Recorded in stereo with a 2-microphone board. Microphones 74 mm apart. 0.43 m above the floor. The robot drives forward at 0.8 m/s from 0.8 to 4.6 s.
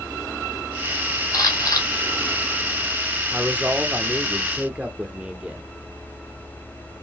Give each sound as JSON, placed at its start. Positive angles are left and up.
{"t": 1.3, "sound": "a camera shutter", "side_deg": 50, "distance_m": 2.0}
{"t": 3.3, "sound": "a man speaking", "side_deg": -15, "distance_m": 1.4}